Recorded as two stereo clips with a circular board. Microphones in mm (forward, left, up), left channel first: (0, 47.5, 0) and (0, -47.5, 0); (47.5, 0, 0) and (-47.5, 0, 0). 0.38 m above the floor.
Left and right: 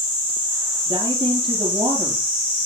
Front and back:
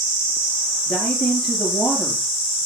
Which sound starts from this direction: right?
A woman speaking, at 0.9 s.